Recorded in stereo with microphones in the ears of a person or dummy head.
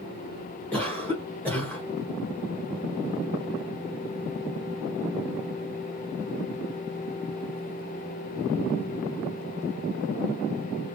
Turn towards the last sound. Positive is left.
turn(degrees=5)  # may be behind; listen again after turning